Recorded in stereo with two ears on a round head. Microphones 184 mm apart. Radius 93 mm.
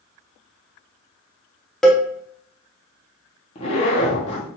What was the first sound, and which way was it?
A cowbell, centre (ahead or behind).